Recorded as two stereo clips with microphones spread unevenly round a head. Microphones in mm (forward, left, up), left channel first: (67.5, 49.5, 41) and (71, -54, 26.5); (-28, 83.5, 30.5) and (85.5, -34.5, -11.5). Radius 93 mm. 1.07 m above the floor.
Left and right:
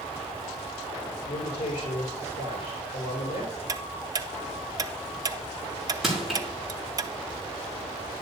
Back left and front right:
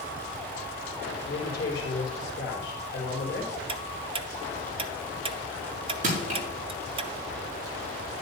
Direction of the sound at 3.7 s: 65° right.